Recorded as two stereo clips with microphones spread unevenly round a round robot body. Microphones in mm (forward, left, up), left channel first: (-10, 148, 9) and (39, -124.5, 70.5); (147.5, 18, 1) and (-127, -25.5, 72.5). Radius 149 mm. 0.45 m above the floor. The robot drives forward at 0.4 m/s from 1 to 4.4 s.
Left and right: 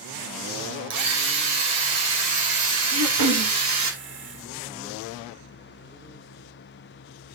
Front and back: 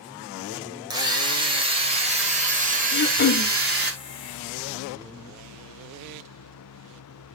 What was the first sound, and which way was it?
A drill, 90° right.